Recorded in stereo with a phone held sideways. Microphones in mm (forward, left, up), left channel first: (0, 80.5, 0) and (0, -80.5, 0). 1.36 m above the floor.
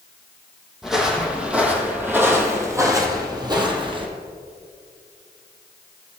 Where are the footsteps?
Centre (ahead or behind), 2 m; by 4.1 s 30° right (ahead or behind), 1.6 m.